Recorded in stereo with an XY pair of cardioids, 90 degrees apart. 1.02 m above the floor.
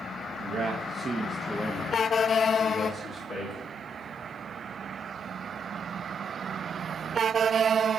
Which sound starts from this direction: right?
A man speaking, at 0.4 s.